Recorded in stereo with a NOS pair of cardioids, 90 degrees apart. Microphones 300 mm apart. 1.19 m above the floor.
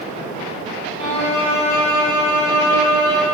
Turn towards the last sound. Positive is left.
turn(degrees=-55)